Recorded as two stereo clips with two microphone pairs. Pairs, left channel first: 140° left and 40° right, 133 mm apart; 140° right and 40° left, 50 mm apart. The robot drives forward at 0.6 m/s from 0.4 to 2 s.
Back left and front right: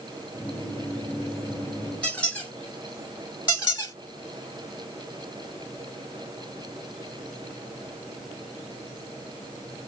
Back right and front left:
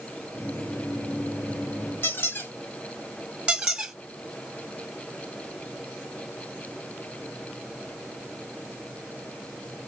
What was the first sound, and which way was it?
A squeak, 145° right.